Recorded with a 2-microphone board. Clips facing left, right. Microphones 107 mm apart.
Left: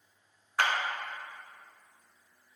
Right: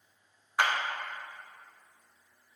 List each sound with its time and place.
0.6 s a clap: 15° right (ahead or behind), 1.0 m